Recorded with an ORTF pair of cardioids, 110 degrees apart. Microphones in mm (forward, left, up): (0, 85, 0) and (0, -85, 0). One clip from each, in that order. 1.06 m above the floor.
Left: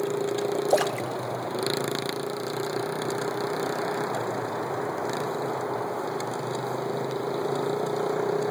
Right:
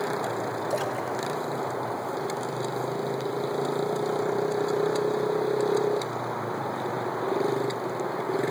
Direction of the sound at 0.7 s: 40° left.